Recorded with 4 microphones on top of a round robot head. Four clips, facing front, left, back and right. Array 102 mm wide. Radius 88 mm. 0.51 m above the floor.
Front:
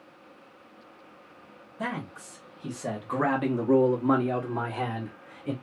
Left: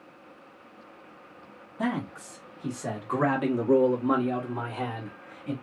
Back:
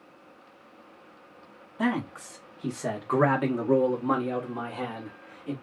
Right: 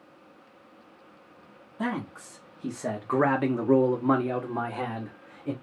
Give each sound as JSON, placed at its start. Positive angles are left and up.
{"t": 1.8, "sound": "a man speaking", "azimuth_deg": 180, "distance_m": 1.2}